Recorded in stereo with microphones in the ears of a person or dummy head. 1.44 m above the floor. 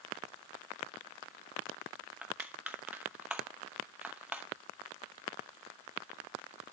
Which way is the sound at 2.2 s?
5° right (ahead or behind).